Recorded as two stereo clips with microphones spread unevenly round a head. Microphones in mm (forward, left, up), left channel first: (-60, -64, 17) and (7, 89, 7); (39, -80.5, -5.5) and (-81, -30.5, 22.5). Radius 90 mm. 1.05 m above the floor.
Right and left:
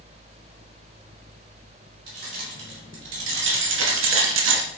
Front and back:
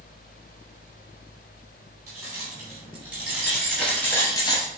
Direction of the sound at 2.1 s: 80° left.